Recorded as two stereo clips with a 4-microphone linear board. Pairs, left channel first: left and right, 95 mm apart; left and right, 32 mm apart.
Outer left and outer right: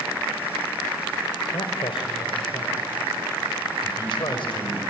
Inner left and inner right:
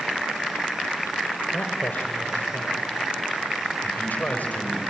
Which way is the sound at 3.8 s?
60° left (ahead or behind).